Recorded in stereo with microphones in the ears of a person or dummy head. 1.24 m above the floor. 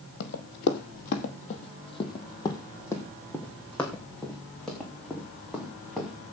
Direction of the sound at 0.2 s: 55° left (ahead or behind).